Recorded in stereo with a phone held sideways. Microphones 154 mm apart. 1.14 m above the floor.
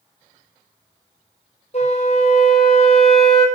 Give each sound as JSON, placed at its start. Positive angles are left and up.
{"t": 1.7, "sound": "a flute", "side_deg": 45, "distance_m": 0.8}